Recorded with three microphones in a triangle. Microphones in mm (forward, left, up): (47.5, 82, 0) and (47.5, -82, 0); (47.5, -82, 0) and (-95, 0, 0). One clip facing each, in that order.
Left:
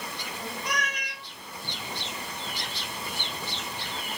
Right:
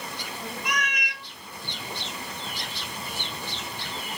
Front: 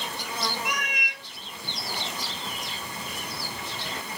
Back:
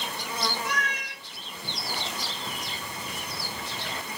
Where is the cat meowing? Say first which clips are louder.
Right 2 dB, back 1 dB; 40° left, 0.8 m.